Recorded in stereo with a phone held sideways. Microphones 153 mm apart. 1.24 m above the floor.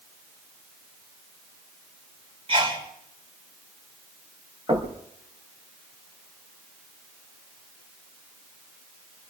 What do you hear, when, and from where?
2.5 s a sneeze: 40° right (ahead or behind), 5.5 m
4.7 s knocking: 35° right (ahead or behind), 4.5 m